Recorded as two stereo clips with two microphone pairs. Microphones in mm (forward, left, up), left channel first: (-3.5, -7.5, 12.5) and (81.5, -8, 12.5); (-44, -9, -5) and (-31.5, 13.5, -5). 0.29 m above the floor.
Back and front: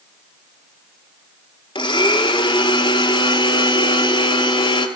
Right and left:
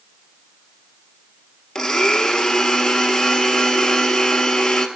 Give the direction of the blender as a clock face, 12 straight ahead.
6 o'clock.